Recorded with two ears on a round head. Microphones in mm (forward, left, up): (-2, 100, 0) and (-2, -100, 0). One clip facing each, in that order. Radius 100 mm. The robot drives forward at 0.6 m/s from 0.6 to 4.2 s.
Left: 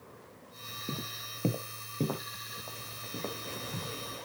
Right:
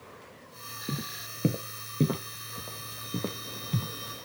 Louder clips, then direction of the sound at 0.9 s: Right 4 dB; 15° right (ahead or behind).